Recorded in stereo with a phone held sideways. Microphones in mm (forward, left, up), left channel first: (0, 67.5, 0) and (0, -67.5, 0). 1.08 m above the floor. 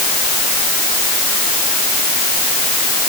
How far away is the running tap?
No running tap in this recording.